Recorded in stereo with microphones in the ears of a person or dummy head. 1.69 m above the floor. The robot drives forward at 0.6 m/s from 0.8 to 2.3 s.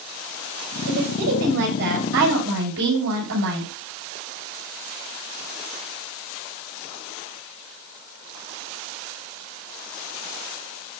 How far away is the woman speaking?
About 7.5 m.